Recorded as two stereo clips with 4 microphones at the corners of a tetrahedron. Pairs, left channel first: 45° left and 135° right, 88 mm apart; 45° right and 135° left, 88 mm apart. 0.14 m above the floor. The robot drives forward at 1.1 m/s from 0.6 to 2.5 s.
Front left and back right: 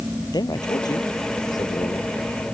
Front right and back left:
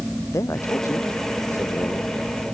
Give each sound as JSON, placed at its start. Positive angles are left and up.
{"t": 0.3, "sound": "a man speaking", "azimuth_deg": 10}